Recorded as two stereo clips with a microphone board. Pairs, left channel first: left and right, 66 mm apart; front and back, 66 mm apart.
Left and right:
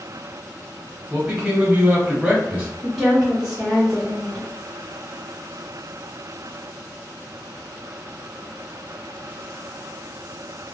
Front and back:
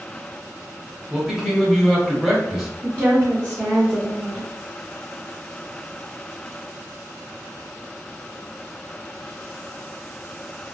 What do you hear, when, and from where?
1.1 s a man speaking: 105° right, 1.0 m
2.8 s a woman speaking: 175° left, 1.2 m